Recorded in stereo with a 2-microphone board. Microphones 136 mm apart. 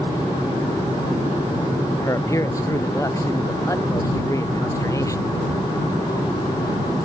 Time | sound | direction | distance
2.0 | a man speaking | 25° left (ahead or behind) | ?